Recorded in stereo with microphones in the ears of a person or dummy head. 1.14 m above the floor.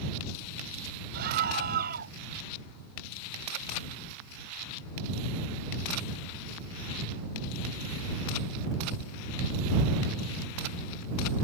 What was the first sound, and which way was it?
A scream, 50° right (ahead or behind).